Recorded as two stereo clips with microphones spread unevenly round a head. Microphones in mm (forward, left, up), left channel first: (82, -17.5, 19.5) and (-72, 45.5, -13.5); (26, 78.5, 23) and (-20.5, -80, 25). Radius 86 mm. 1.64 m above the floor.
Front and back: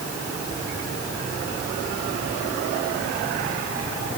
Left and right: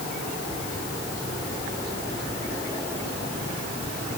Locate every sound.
Only background noise.